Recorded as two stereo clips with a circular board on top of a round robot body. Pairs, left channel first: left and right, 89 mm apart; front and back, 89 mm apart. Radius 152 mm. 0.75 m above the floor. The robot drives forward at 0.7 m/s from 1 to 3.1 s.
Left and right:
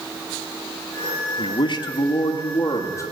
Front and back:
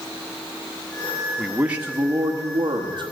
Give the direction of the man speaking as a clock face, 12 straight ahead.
9 o'clock.